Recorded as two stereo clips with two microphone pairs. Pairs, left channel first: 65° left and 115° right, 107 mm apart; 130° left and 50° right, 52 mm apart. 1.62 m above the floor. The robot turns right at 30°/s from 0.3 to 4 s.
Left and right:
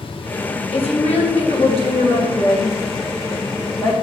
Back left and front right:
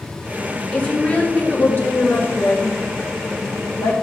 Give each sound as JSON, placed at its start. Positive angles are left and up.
{"t": 0.7, "sound": "a woman speaking", "azimuth_deg": 55, "distance_m": 1.4}